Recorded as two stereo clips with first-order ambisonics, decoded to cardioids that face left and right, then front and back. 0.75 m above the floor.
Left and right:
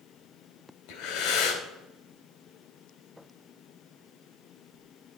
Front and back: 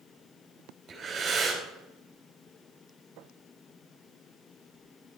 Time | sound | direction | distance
0.9 | breathing | 110° left | 3 m